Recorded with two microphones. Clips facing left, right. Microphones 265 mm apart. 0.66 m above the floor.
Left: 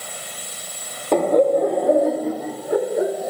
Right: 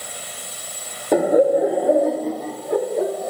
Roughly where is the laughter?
Centre.